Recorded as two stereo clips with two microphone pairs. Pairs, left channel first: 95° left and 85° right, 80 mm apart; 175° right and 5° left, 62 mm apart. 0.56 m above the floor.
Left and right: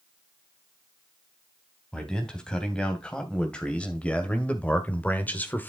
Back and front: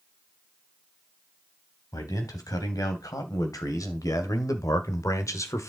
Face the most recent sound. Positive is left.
turn(degrees=160)